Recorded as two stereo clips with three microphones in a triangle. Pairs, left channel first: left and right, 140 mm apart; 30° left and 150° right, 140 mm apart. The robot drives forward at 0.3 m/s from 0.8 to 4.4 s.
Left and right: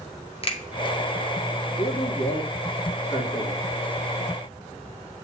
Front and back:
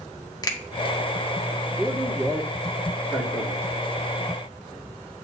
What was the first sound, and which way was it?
A finger snap, 75° left.